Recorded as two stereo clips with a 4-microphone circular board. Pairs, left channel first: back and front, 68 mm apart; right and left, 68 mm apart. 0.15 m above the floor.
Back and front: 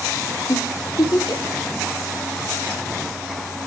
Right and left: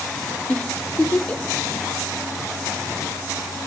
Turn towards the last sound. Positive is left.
turn(degrees=-160)